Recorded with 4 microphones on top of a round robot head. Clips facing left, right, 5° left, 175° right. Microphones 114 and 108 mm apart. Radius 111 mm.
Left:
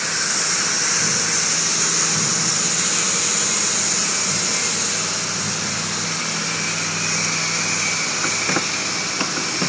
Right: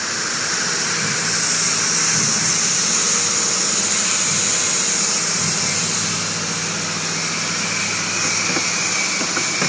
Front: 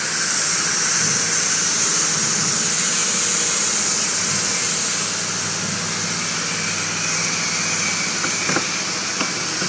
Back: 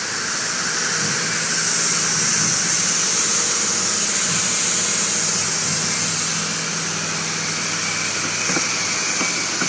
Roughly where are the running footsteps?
I don't hear running footsteps.